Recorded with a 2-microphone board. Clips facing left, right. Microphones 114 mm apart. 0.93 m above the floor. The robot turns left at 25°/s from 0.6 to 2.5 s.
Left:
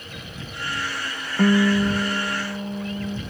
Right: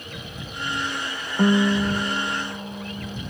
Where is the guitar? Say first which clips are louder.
Left 1 dB; 5° right (ahead or behind); by 3.2 s 20° left (ahead or behind).